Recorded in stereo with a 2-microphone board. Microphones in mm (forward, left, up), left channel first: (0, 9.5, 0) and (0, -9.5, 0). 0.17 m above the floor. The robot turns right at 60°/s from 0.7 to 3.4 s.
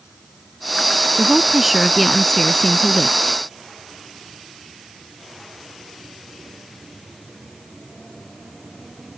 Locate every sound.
1.2 s a woman speaking: 45° right; by 3.4 s 85° left